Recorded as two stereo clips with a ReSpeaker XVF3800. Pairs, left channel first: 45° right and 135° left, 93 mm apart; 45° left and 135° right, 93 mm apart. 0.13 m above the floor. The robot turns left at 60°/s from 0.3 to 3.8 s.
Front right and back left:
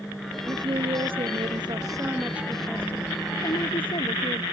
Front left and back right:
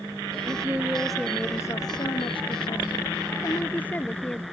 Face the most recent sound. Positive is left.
turn(degrees=-25)